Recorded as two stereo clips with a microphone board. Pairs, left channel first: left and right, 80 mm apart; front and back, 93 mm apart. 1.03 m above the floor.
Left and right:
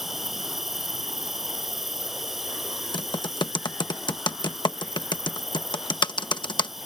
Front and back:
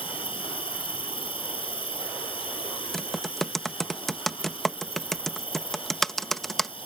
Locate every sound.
0.0 s an insect: 5° right
2.9 s typing on a keyboard: 85° left